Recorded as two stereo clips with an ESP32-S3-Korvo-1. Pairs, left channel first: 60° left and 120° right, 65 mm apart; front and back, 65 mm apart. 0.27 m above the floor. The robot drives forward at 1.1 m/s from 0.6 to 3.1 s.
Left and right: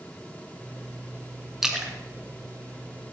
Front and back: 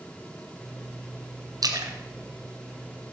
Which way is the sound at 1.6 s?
155° left.